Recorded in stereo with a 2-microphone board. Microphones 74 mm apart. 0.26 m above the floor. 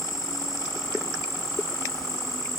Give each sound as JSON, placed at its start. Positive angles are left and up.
{"t": 0.0, "sound": "an insect", "side_deg": 50, "distance_m": 1.6}